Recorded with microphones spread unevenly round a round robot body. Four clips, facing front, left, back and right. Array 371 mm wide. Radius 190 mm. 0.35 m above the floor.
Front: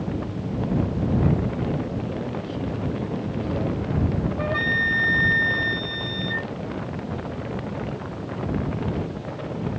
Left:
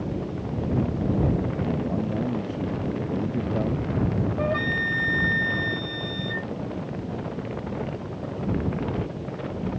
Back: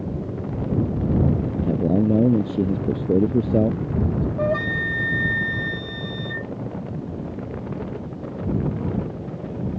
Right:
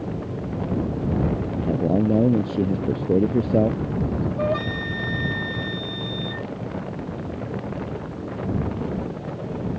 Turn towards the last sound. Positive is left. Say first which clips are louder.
# right 1 dB, back 2 dB
turn(degrees=-170)